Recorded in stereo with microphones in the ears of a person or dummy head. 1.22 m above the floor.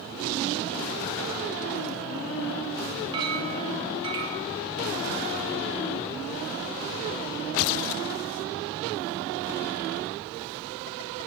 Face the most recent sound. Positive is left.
turn(degrees=-25)  # may be behind; listen again after turning